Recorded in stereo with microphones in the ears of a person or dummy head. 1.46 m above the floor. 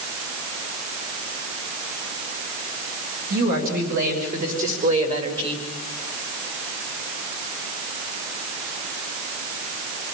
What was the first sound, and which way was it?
A woman speaking, 60° right (ahead or behind).